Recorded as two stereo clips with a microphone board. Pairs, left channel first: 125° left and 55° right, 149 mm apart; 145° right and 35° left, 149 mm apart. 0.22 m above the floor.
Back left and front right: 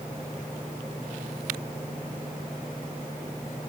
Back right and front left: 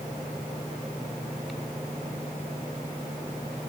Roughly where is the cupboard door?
No cupboard door in this recording.